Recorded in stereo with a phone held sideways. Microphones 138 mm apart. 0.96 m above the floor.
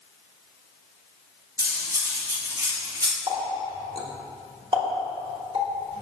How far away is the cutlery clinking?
About 0.9 m.